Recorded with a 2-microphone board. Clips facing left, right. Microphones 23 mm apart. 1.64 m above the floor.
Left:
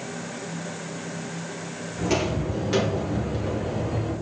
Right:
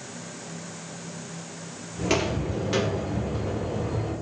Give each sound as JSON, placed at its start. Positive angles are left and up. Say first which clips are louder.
{"t": 2.0, "sound": "footsteps", "louder": "even", "side_deg": -20, "distance_m": 2.0}